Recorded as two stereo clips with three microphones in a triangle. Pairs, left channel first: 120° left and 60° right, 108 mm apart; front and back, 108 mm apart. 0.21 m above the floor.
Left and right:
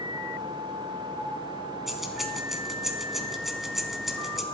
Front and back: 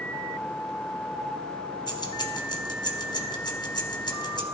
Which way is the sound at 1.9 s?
30° left.